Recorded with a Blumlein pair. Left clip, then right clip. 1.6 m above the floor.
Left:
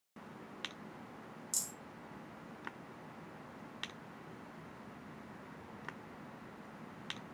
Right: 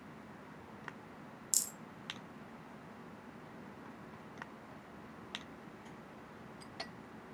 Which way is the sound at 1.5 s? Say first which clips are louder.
Right 4 dB; 25° right.